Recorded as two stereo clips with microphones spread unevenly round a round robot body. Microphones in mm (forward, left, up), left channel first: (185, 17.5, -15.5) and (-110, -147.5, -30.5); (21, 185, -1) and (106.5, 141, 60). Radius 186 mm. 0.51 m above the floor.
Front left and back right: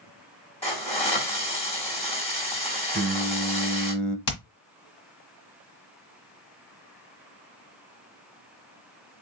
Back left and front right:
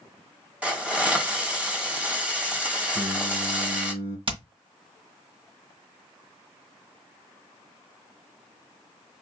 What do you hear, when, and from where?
0.6 s a hiss: 95° left, 1.5 m
2.9 s singing: 60° right, 0.8 m
4.3 s hammering: 5° left, 1.6 m